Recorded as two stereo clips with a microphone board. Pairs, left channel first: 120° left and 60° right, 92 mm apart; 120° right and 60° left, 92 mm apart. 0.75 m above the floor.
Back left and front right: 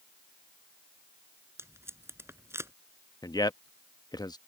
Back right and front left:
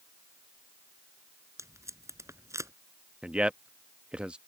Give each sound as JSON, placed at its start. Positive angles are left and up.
{"t": 1.6, "sound": "tape being pulled", "azimuth_deg": 5}
{"t": 3.2, "sound": "a man speaking", "azimuth_deg": 135}